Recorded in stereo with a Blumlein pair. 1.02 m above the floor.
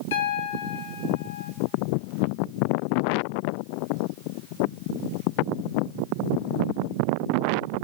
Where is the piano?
55° left, 1.7 m.